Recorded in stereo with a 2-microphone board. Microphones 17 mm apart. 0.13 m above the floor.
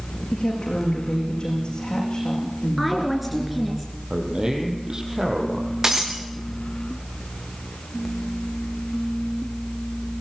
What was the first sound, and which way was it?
A woman speaking, 50° left (ahead or behind).